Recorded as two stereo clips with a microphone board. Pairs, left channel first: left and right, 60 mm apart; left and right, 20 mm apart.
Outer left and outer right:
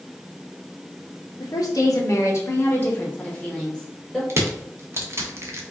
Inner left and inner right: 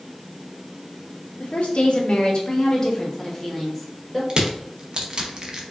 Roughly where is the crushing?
Right.